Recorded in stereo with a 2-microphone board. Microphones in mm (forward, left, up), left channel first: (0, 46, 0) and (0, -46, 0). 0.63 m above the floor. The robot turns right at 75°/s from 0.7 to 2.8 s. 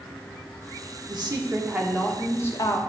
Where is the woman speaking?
70° right, 1.1 m; by 2.8 s 60° left, 1.1 m.